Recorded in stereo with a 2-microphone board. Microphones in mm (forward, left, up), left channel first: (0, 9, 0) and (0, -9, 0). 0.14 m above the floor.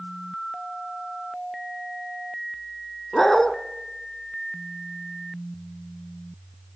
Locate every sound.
3.1 s a dog barking: 20° left (ahead or behind), 2 m